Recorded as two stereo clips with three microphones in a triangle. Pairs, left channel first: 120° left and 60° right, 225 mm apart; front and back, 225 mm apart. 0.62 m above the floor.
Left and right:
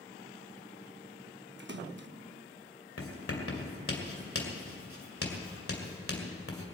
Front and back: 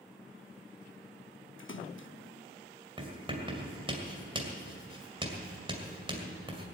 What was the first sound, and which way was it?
A splash, 25° right.